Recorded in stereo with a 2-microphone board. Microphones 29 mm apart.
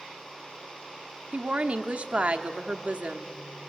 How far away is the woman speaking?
About 0.9 m.